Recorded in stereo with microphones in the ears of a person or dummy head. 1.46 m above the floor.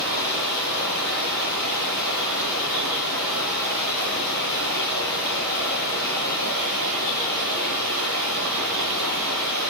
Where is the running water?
60° right (ahead or behind), 8.5 m.